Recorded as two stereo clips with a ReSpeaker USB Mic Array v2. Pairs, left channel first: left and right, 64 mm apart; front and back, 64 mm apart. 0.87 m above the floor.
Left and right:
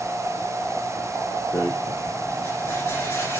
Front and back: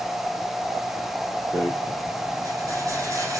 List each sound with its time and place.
1.5 s a rattle: 140° left, 5 m